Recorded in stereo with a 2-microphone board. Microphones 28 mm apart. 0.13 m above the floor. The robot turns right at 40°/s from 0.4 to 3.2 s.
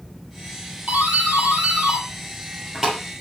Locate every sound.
0.9 s a doorbell: 95° right, 5.5 m; by 3.0 s 10° right, 5.5 m